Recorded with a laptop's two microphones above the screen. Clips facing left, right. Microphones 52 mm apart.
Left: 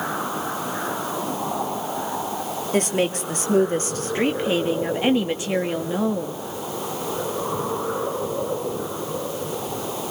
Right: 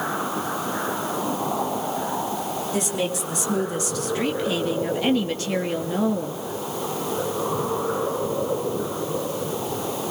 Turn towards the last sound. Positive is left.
turn(degrees=5)  # may be behind; listen again after turning